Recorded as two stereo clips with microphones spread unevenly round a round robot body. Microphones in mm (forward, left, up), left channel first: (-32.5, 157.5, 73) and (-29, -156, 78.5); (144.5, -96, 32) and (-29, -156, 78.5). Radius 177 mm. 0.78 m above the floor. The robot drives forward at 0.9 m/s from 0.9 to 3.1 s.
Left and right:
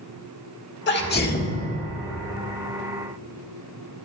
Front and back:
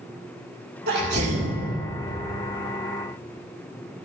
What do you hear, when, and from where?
0.9 s a sneeze: 145° left, 1.9 m; by 1.6 s 155° left, 2.5 m